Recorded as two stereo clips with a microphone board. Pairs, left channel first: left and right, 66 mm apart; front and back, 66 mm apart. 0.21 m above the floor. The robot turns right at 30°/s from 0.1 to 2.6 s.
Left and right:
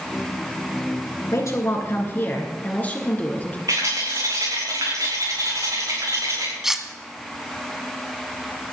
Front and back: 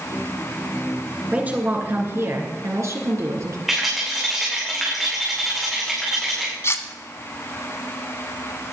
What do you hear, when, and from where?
1.3 s a woman speaking: 115° left, 3 m; by 3.6 s 155° left, 3 m
3.7 s a rattle: 95° right, 6.5 m
6.6 s cutlery clinking: 10° right, 1.1 m